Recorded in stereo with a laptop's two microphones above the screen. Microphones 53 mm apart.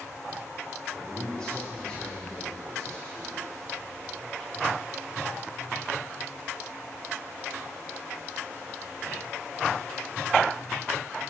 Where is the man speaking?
15° left (ahead or behind), 2.5 m.